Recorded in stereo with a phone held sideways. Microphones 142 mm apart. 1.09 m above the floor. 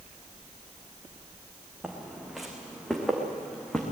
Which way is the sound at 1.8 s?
5° right (ahead or behind).